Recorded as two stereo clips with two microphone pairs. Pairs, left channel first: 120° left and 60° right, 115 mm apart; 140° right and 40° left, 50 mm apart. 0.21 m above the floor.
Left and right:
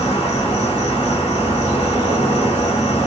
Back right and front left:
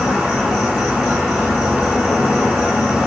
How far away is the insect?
About 1.2 m.